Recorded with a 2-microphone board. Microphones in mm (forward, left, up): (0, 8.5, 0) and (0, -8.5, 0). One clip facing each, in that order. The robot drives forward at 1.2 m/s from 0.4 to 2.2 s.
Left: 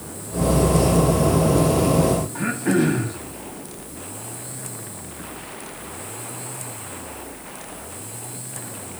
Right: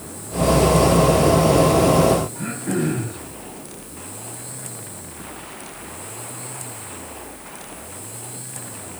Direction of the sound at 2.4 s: 80° left.